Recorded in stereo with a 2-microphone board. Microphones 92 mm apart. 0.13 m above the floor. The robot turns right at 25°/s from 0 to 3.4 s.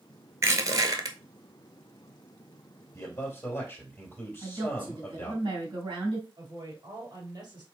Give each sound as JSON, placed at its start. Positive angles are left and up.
{"t": 0.4, "sound": "crushing", "side_deg": -30, "distance_m": 0.9}
{"t": 2.9, "sound": "a man speaking", "side_deg": 35, "distance_m": 2.5}
{"t": 4.4, "sound": "a woman speaking", "side_deg": -65, "distance_m": 3.0}
{"t": 6.4, "sound": "a woman speaking", "side_deg": -55, "distance_m": 3.0}